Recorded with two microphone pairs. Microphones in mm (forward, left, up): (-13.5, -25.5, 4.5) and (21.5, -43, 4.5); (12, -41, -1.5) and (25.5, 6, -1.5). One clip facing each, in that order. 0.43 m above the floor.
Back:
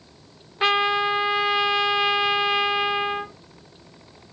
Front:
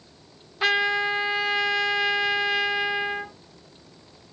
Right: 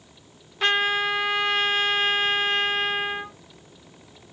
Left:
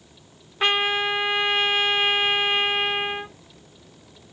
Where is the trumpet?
125° left, 1.5 m.